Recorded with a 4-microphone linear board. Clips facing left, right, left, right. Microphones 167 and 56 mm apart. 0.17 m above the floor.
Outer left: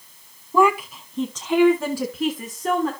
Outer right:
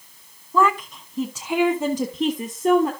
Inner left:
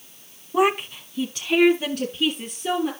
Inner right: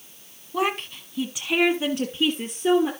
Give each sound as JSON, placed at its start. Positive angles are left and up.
{"t": 0.5, "sound": "a woman speaking", "side_deg": 15, "distance_m": 1.0}